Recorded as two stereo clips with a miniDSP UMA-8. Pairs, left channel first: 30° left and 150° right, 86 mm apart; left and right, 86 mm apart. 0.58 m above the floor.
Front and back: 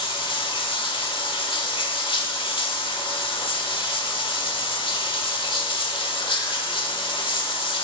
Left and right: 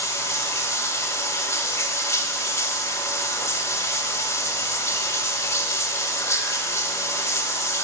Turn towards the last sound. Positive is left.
turn(degrees=35)